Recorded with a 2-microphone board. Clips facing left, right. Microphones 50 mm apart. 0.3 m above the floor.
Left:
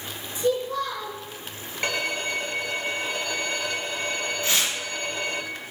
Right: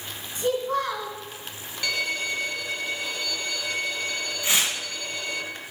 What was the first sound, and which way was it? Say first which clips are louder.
A child speaking: even; 65° right (ahead or behind).